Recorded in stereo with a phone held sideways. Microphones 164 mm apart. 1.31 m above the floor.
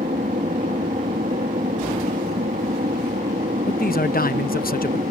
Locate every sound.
0.0 s an aircraft: 55° right (ahead or behind)
3.7 s a man speaking: 65° left (ahead or behind)